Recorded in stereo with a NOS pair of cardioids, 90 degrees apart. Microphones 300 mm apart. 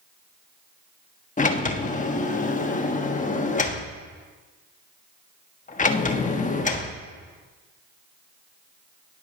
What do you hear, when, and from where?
1.4 s a sliding door: 25° left, 1.3 m